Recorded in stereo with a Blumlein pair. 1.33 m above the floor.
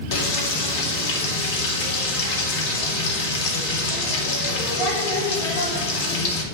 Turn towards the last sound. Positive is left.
turn(degrees=50)